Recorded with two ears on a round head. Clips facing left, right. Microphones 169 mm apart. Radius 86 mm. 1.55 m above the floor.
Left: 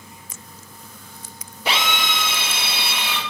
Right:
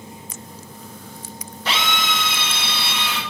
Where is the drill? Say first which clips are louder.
Even; 10° left (ahead or behind), 1.9 m.